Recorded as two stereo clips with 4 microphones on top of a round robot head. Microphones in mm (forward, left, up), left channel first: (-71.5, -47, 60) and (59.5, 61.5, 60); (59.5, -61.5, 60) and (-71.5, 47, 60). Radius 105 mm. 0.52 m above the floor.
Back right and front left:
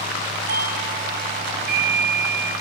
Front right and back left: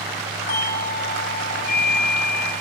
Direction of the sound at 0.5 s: Straight ahead.